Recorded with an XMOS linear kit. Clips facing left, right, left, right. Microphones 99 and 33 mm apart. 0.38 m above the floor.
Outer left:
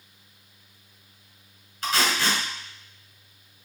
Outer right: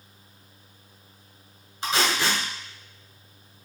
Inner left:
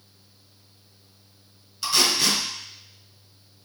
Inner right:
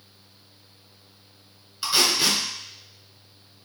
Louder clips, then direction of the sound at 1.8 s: Even, even; 25° right (ahead or behind).